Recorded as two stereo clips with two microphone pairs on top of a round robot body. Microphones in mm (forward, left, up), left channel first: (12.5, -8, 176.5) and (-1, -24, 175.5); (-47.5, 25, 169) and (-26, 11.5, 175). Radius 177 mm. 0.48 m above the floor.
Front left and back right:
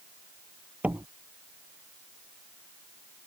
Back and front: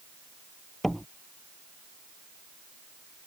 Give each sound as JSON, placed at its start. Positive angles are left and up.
{"t": 0.8, "sound": "a door slam", "azimuth_deg": -125}